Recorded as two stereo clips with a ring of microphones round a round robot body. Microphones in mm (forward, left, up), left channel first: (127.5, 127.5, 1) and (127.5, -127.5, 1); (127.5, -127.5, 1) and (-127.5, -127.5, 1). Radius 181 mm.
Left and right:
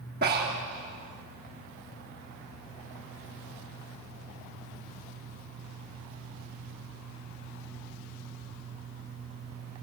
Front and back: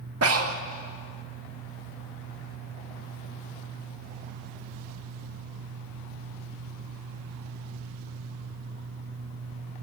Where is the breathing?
155° right, 1.7 m.